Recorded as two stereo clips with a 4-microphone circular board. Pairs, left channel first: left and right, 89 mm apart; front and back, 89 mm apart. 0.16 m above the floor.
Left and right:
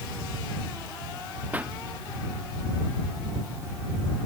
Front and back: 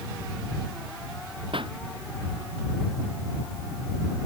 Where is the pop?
160° right.